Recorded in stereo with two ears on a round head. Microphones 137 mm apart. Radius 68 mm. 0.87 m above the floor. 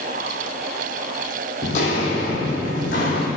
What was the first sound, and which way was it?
Footsteps, 50° left (ahead or behind).